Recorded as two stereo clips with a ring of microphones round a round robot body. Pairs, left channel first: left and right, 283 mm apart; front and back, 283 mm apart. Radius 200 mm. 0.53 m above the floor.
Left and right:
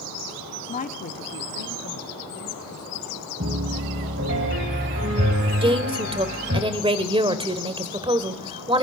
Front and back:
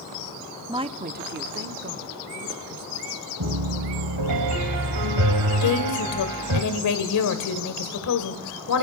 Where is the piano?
155° right, 1.8 m.